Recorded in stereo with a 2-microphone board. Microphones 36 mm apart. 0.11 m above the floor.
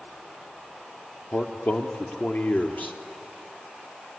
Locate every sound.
1.3 s a man speaking: 60° left (ahead or behind), 2.5 m